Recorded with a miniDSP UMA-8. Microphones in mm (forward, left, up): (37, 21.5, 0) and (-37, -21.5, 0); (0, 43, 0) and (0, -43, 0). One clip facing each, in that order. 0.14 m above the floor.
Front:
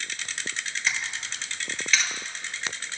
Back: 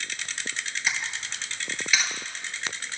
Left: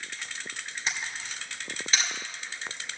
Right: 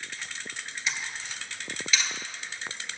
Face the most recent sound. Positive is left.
turn(degrees=130)